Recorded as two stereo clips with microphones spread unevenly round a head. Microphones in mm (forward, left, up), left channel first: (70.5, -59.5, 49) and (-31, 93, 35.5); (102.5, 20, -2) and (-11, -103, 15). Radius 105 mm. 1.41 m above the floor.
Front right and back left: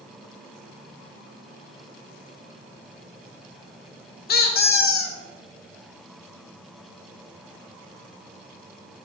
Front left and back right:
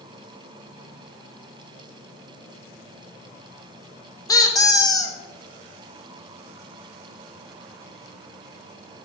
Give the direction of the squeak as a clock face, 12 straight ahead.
1 o'clock.